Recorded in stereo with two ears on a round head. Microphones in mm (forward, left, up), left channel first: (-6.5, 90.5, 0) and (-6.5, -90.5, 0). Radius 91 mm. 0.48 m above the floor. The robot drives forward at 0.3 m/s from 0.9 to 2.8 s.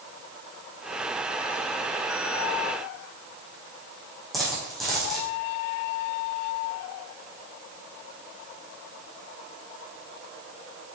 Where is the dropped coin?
Centre (ahead or behind), 5 m.